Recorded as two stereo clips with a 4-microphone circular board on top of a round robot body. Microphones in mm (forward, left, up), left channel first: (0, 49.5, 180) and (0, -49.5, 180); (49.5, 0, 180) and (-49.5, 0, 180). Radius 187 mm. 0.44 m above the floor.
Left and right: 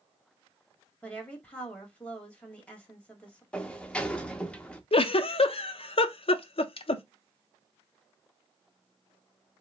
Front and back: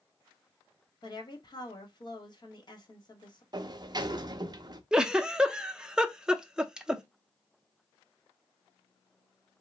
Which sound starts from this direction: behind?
A sliding door, at 3.5 s.